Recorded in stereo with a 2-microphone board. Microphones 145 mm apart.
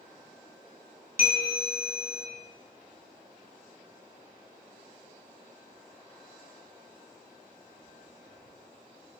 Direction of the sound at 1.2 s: 60° left (ahead or behind).